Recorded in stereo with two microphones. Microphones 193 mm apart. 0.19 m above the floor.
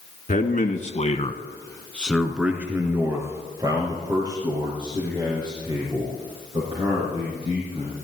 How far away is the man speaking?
About 1.8 m.